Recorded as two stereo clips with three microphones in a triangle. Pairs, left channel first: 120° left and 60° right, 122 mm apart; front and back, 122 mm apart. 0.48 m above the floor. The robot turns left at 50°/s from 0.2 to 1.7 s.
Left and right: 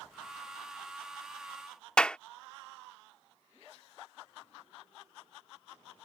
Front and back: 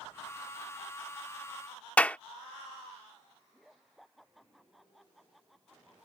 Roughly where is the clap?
Ahead left.